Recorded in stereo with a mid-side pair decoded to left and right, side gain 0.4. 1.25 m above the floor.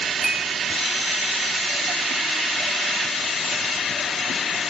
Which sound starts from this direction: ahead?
A clink, at 0.2 s.